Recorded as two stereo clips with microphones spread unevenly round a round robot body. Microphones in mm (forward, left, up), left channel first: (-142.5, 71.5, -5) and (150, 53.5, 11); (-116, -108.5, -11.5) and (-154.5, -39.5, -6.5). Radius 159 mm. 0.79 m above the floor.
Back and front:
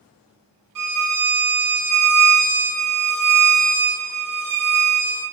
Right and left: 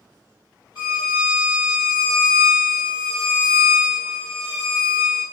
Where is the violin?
15° right, 1.4 m.